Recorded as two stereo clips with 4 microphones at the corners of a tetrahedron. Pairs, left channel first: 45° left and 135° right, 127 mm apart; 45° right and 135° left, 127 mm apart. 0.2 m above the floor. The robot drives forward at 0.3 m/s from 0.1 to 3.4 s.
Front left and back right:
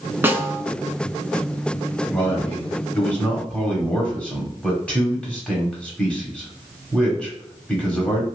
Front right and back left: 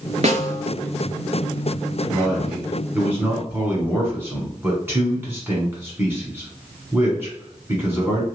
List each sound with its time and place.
0.2 s a snare drum: 150° left, 0.7 m; by 0.6 s 155° left, 0.8 m
2.1 s a man speaking: 55° left, 1.1 m; by 8.2 s 110° left, 1.1 m